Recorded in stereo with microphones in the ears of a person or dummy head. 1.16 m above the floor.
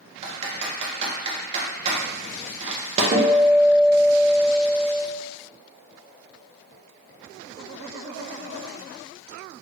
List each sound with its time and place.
0.2 s typing on a keyboard: 35° right (ahead or behind), 0.8 m
3.1 s a guitar: 45° right (ahead or behind), 1.2 m